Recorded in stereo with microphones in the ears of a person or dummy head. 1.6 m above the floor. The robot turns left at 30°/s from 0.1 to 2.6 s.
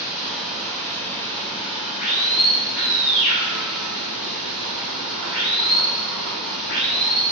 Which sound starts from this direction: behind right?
Running water, at 0.0 s.